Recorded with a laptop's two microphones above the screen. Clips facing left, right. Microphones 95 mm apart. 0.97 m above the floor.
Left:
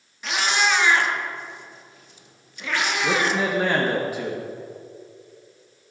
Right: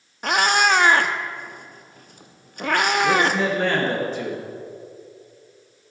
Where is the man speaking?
10° left (ahead or behind), 1.1 m.